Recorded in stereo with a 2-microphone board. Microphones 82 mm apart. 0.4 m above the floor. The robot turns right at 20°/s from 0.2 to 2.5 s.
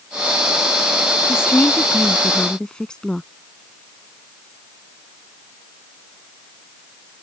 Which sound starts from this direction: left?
A woman speaking, at 1.3 s.